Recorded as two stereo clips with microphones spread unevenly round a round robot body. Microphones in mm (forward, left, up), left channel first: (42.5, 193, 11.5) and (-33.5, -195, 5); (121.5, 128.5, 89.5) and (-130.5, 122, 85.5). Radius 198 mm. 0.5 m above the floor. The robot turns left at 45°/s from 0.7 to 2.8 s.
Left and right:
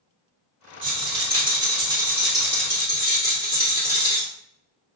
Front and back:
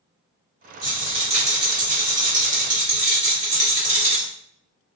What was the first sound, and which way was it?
A rattle, 120° right.